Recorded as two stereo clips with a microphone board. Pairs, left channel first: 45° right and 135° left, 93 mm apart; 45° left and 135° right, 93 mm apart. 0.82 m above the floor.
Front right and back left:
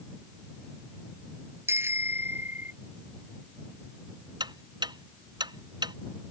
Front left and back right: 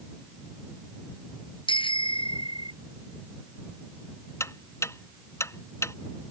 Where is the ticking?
105° left.